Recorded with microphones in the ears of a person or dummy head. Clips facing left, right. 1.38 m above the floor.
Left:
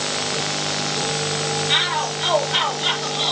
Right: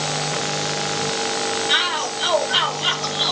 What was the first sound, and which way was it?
A shout, 5° right (ahead or behind).